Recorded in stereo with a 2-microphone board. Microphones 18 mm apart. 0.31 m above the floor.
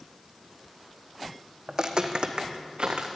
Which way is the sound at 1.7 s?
35° right (ahead or behind).